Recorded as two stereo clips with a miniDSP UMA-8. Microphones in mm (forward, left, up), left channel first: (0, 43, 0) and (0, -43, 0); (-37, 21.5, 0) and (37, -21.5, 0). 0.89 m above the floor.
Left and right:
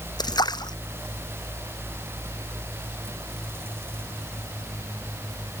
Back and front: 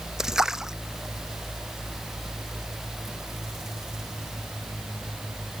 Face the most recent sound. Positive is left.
turn(degrees=55)